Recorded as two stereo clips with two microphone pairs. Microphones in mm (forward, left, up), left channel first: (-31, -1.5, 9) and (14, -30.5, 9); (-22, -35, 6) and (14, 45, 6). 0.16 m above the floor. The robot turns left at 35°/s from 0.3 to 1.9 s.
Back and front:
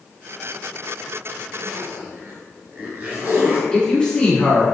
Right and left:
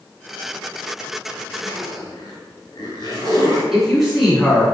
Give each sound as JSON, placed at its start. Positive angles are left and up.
{"t": 1.6, "sound": "a zipper", "azimuth_deg": -75, "distance_m": 1.1}
{"t": 3.7, "sound": "a woman speaking", "azimuth_deg": 140, "distance_m": 1.5}